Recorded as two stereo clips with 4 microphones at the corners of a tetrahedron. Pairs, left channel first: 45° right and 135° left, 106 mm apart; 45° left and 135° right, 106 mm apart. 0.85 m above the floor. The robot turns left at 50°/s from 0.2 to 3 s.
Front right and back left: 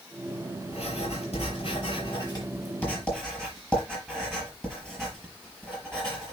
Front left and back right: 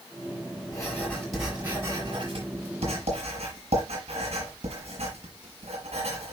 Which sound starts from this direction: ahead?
Writing, at 0.7 s.